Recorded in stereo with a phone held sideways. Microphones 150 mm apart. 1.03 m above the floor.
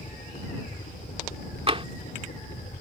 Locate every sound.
0.0 s a helicopter: 55° left (ahead or behind); by 2.8 s 60° left (ahead or behind)
1.7 s tapping: 40° right (ahead or behind)